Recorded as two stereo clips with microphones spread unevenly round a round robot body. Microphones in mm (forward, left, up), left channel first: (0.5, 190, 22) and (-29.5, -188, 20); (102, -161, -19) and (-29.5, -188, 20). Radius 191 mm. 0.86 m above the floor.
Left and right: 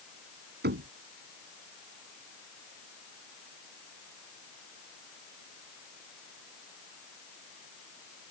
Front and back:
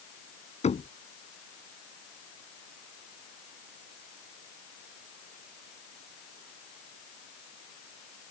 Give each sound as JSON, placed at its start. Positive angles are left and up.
{"t": 0.6, "sound": "knocking", "azimuth_deg": -30}